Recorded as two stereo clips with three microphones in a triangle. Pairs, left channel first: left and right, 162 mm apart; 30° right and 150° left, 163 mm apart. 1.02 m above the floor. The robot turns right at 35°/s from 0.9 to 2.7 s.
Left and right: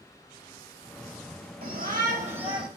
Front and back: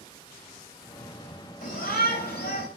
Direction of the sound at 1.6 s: 70° right.